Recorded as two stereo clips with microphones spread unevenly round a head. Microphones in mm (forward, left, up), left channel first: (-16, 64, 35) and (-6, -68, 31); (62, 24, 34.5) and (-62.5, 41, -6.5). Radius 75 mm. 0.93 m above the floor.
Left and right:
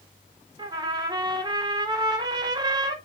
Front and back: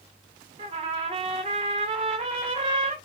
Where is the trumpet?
145° right, 0.6 m.